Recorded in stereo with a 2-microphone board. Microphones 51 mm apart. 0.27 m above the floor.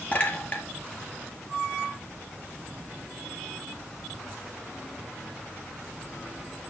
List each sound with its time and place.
0.1 s a clink: 35° left (ahead or behind), 4 m